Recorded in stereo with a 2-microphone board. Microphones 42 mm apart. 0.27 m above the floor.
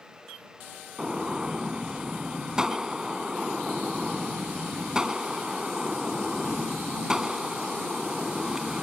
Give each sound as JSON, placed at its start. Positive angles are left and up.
{"t": 1.0, "sound": "a gunshot", "side_deg": -15}